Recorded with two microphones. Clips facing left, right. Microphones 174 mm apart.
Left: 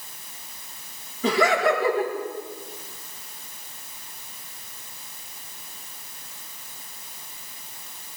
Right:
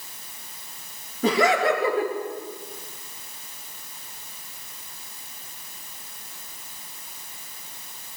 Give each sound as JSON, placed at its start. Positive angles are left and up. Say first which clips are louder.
{"t": 1.2, "sound": "laughter", "louder": "even", "side_deg": -50, "distance_m": 5.5}